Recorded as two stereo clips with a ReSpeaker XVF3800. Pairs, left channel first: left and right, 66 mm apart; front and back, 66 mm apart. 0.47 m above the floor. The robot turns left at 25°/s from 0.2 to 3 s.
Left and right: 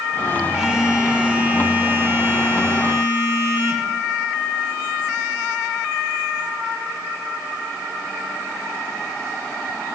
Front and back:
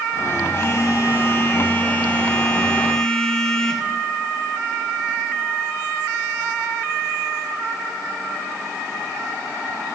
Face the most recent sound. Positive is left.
turn(degrees=-75)